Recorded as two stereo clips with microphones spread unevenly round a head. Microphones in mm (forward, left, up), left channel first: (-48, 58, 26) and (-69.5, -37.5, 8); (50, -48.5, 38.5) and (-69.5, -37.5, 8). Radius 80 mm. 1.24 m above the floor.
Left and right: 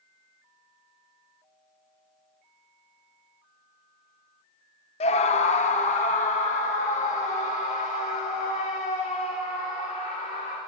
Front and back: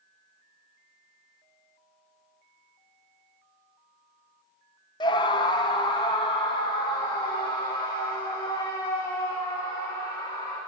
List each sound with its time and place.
5.0 s a scream: 60° left, 0.8 m